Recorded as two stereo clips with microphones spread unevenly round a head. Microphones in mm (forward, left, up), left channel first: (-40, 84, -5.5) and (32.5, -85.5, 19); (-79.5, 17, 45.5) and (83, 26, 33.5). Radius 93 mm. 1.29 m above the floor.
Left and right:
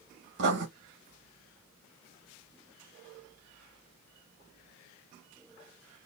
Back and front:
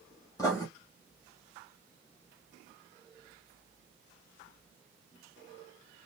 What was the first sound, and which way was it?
Writing, 105° right.